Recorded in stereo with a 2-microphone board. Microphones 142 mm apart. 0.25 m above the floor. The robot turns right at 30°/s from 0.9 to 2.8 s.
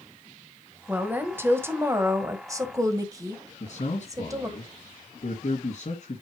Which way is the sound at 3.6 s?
50° left (ahead or behind).